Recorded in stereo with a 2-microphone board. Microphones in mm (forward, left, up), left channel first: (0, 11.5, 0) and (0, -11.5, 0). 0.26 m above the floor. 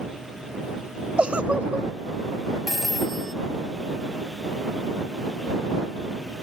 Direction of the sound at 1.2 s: 55° right (ahead or behind).